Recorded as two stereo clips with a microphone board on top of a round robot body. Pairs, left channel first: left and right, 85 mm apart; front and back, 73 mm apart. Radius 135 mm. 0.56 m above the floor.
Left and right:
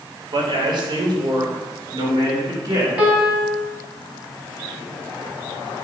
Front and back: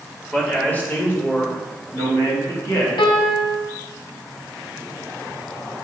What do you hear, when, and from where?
0.3 s a man speaking: 75° right, 2.5 m; by 2.9 s 40° right, 4 m
3.0 s a piano: 10° right, 2 m